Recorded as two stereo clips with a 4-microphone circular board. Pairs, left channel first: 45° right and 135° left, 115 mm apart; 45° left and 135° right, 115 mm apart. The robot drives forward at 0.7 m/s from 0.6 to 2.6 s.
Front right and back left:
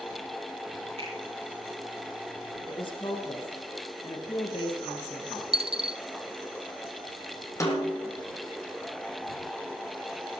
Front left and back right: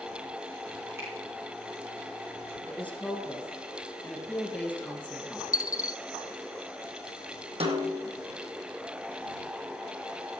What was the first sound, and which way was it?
A finger snap, 160° left.